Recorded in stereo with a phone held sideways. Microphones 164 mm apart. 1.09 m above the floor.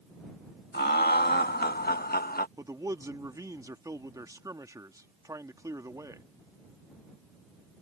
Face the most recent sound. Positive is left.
turn(degrees=-20)  # may be behind; listen again after turning